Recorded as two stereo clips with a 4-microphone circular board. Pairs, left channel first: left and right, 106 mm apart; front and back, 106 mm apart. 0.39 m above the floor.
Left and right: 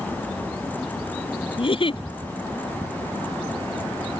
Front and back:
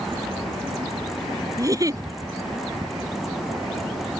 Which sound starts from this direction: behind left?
A giggle, at 1.6 s.